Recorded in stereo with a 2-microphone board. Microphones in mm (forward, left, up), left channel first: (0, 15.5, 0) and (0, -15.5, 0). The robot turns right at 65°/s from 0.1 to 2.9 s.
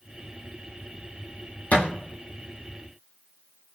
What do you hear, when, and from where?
1.7 s a thud: 60° left (ahead or behind), 0.9 m; by 1.9 s 65° left (ahead or behind), 0.9 m